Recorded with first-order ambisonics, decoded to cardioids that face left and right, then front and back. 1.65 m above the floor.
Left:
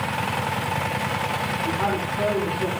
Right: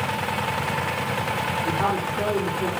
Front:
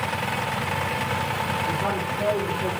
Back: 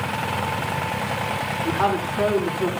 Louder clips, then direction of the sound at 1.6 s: Right 1 dB, back 3 dB; straight behind.